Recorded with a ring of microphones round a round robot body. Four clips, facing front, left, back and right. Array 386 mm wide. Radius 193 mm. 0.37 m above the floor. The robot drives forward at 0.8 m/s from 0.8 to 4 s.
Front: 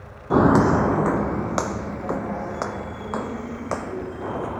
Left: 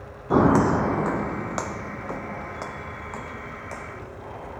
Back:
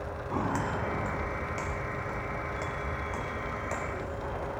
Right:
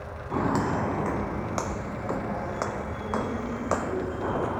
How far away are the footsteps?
About 0.7 m.